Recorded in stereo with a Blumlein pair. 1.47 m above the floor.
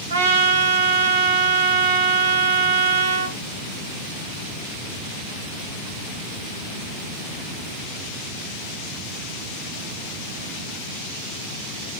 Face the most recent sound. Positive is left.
turn(degrees=-70)